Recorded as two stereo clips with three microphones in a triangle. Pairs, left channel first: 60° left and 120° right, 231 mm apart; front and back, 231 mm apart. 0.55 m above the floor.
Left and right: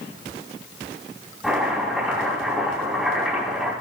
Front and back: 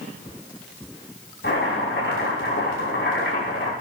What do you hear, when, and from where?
1.4 s chopping: 30° right, 4.5 m